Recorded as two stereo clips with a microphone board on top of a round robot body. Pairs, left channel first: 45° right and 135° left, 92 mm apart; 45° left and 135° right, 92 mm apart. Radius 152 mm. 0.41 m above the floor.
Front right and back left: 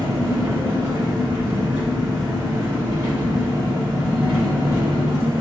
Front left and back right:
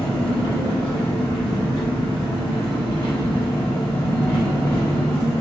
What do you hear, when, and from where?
0.0 s an engine running: 75° left, 1.9 m